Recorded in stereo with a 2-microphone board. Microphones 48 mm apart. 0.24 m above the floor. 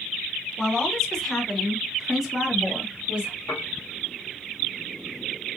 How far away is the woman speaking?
About 1.8 m.